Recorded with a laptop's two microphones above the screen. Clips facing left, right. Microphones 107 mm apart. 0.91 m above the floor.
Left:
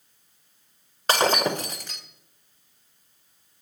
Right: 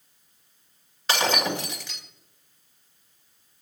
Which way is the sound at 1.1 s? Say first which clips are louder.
Left 3 dB; 45° left (ahead or behind).